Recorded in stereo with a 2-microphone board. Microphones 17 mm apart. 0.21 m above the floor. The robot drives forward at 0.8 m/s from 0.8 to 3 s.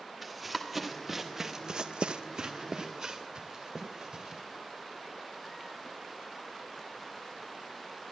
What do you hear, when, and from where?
0.2 s running footsteps: 5° left (ahead or behind), 1.9 m; by 4.4 s 30° right (ahead or behind), 2.5 m